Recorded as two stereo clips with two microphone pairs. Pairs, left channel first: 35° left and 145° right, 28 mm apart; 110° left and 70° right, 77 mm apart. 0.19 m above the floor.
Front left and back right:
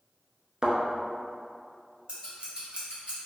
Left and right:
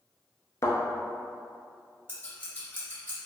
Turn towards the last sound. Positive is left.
turn(degrees=170)